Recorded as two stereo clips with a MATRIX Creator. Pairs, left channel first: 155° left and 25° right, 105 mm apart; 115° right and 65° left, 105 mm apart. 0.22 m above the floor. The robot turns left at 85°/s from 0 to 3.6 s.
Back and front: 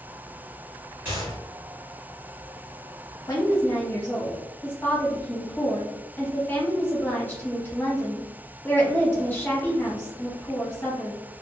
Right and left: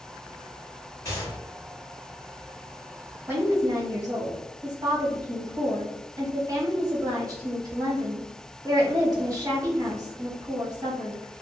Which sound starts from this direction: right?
A gunshot, at 1.1 s.